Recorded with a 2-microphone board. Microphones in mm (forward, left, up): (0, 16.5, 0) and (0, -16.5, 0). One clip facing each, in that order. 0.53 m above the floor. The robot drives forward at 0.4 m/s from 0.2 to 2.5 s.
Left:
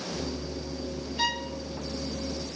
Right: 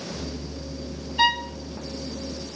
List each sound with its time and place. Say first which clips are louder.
1.2 s a violin: right 9 dB; 40° right (ahead or behind), 0.6 m; by 1.5 s 35° right (ahead or behind), 0.7 m